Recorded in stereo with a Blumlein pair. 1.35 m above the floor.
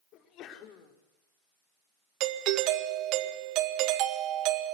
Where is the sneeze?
35° left, 4.5 m.